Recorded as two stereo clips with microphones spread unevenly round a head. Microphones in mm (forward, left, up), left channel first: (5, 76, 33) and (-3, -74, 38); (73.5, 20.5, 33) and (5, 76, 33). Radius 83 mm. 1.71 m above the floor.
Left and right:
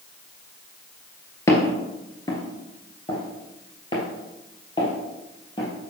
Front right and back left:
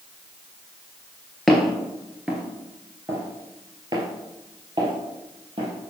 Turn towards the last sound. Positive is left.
turn(degrees=145)